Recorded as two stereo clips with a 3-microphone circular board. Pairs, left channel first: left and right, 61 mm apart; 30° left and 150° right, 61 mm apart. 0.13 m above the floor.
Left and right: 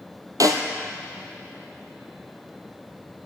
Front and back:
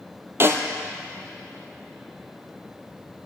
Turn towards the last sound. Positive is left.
turn(degrees=-100)